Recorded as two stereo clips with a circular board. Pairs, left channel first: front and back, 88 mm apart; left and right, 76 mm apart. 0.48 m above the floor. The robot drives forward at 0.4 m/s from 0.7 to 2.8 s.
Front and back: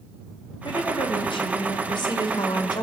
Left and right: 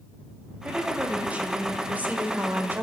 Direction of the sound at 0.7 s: 15° right.